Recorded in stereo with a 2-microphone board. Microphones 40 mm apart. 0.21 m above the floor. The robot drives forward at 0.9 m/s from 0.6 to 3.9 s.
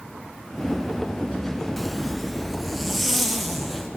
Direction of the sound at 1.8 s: 5° left (ahead or behind).